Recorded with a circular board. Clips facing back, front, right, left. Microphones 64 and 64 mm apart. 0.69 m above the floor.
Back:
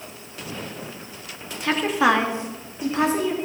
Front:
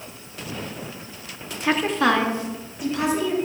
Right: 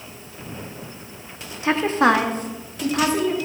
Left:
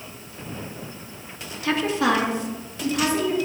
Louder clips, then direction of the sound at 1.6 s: Back 1 dB, right 4 dB; 60° right.